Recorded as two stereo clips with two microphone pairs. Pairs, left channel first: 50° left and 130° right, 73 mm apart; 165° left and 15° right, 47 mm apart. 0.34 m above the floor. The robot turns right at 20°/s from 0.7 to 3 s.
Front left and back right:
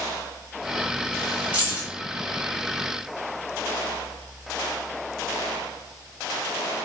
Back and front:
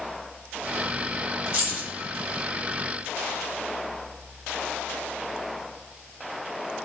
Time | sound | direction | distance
1.5 | keys jangling | 70° right | 1.4 m